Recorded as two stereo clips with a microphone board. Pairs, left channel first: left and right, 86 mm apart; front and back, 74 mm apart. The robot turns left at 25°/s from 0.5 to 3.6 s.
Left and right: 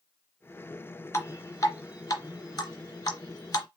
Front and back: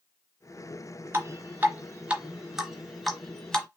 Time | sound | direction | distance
1.1 | dripping | 135° left | 1.1 m